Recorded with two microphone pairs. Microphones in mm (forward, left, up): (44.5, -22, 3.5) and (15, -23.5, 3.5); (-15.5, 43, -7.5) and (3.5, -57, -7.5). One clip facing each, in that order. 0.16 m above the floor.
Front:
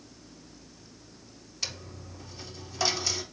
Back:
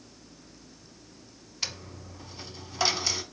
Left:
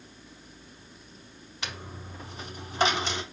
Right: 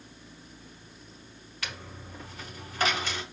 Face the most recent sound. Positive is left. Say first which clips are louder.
# back 1 dB, left 2 dB
turn(degrees=135)